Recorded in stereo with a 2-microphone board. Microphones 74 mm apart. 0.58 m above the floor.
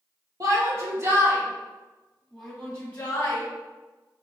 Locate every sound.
0.4 s a shout: 50° right (ahead or behind), 1.4 m; by 3.4 s 35° left (ahead or behind), 1.2 m